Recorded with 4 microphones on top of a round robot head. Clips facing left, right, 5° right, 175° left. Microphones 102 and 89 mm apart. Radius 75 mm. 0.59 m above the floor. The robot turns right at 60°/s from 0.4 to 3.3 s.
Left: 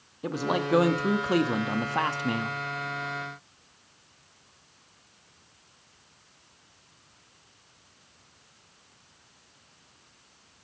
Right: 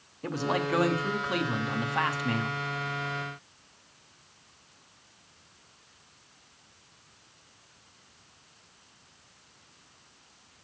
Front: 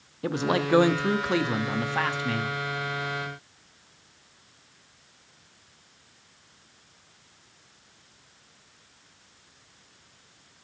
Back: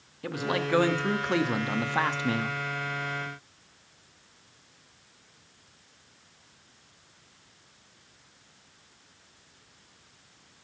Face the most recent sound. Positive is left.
turn(degrees=-160)